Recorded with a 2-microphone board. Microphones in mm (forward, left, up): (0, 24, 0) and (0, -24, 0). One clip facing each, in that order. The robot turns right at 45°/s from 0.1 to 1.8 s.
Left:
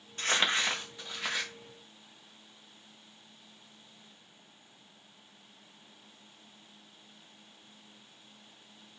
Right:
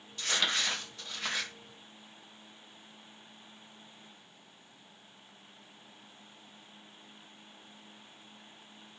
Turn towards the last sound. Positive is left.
turn(degrees=-165)